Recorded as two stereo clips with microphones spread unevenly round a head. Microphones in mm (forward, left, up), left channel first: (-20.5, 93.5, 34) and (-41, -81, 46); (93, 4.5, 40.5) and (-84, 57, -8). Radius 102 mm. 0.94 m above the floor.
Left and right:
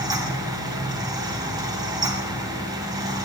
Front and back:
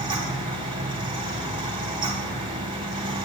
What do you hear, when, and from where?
0.0 s a fan: 160° right, 1.7 m